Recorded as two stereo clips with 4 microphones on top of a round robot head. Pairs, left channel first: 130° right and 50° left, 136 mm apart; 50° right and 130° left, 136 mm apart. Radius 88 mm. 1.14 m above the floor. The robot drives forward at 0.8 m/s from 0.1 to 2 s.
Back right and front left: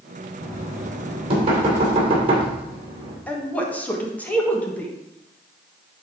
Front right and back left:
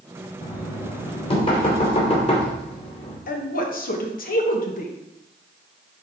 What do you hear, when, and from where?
0.4 s knocking: straight ahead, 4 m
3.3 s a woman speaking: 50° right, 1.5 m